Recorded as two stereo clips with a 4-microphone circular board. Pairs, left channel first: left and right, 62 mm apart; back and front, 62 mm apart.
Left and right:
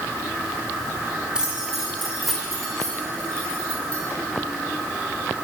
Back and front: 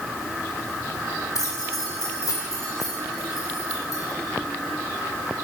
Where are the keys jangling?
165° right, 2.5 m; by 4.0 s 160° left, 4 m.